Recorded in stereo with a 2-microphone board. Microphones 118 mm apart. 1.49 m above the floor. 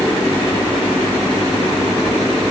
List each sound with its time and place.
Only background noise.